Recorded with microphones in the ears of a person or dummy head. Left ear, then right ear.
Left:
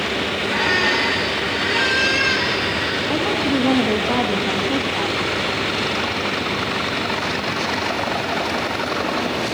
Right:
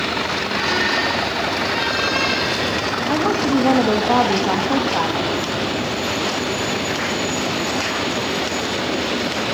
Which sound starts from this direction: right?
A woman speaking, at 3.1 s.